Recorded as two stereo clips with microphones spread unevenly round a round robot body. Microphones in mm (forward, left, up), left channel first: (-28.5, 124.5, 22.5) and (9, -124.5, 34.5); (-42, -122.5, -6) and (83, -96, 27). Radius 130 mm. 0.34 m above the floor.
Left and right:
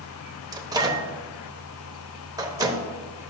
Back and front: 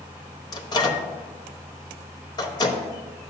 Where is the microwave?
155° right, 1.1 m.